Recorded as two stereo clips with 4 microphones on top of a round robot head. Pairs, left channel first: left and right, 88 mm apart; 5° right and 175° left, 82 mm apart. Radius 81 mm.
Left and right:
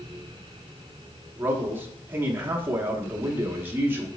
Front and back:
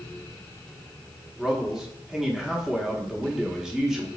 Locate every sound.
1.4 s a man speaking: 105° right, 0.7 m